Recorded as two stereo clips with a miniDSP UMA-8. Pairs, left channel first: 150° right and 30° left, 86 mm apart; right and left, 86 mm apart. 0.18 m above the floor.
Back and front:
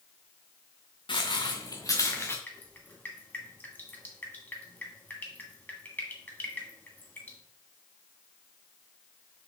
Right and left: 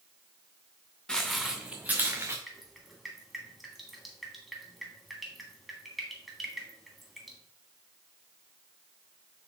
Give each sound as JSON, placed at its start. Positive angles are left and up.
{"t": 1.1, "sound": "footsteps", "azimuth_deg": -170, "distance_m": 1.0}
{"t": 2.5, "sound": "dripping", "azimuth_deg": 180, "distance_m": 1.6}